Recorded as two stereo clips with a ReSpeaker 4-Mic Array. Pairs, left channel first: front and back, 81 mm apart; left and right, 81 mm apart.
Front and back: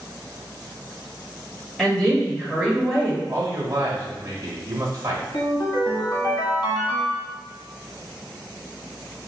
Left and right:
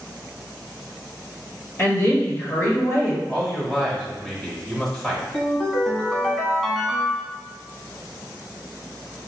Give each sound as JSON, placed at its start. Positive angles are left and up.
{"t": 1.8, "sound": "a woman speaking", "azimuth_deg": 70, "distance_m": 1.5}
{"t": 3.3, "sound": "a man speaking", "azimuth_deg": -175, "distance_m": 1.0}
{"t": 5.3, "sound": "a ringtone", "azimuth_deg": 0, "distance_m": 1.1}